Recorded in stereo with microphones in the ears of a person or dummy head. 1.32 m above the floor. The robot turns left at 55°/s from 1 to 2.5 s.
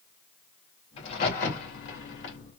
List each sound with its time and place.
1.0 s a crack: 35° left (ahead or behind), 2.5 m; by 2.4 s 65° left (ahead or behind), 2.5 m